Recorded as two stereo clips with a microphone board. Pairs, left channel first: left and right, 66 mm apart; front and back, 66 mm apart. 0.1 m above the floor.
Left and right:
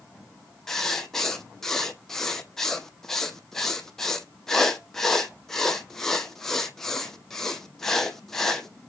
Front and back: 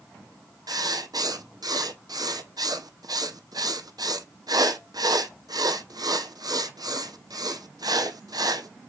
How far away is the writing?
About 0.8 m.